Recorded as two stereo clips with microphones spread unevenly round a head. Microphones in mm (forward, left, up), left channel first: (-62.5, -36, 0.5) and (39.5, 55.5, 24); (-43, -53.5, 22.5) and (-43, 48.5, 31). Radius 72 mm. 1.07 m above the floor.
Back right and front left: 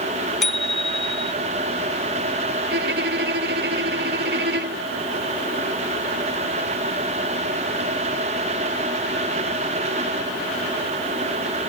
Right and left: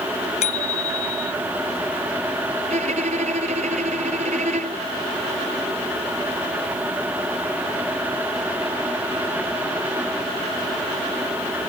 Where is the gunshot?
I don't hear a gunshot.